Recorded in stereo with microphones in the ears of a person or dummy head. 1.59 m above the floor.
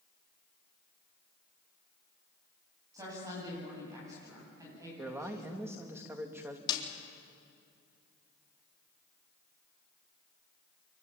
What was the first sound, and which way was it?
A woman speaking, 20° right (ahead or behind).